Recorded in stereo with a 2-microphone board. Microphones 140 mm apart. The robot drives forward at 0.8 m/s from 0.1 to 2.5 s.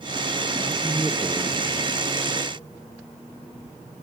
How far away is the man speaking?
About 3 m.